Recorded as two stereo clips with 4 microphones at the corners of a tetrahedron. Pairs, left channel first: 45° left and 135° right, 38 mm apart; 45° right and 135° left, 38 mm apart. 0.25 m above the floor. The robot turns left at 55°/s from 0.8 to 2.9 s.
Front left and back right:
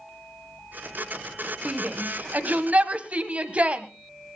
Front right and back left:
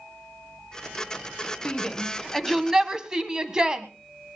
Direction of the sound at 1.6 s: 95° right.